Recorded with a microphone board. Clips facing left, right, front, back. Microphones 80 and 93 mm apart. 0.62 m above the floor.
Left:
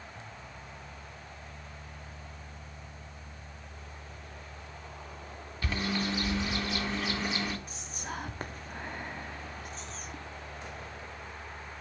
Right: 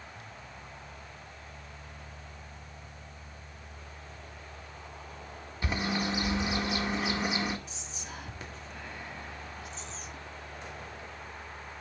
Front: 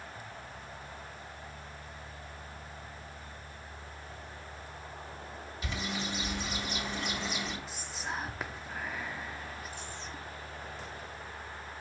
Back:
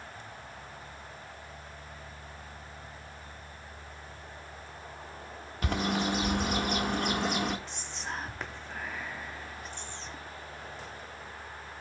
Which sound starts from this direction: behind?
A bird, at 5.6 s.